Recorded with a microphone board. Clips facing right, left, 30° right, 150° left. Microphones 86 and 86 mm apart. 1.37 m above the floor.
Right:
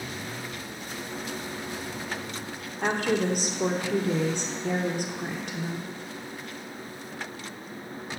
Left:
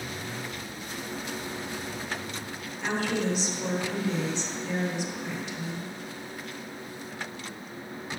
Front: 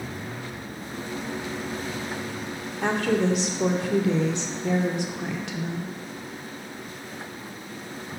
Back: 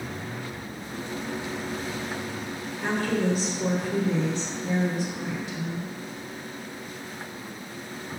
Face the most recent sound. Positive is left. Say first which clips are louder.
# right 3 dB, front 3 dB
turn(degrees=-50)